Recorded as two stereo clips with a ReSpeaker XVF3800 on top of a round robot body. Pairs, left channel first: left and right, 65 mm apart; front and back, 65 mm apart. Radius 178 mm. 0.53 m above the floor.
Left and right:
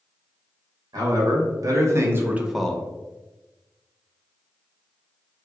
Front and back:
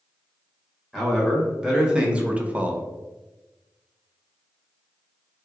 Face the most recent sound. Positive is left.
turn(degrees=125)